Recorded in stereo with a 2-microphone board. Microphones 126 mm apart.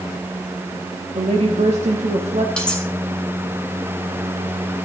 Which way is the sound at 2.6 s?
5° left (ahead or behind).